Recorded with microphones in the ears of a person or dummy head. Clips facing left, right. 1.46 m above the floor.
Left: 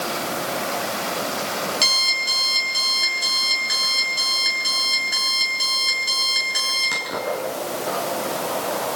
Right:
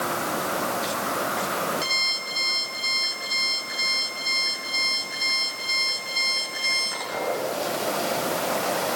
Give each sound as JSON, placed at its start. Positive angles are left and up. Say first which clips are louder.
{"t": 1.8, "sound": "an alarm clock", "louder": "left 2 dB", "side_deg": 85, "distance_m": 8.0}